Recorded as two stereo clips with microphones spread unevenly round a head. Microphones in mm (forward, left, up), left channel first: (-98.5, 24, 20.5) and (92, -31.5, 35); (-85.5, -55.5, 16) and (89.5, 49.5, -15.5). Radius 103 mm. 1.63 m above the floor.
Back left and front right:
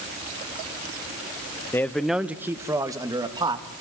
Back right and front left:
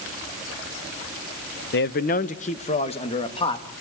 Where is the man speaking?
115° right, 1.0 m; by 3.6 s 85° right, 3 m.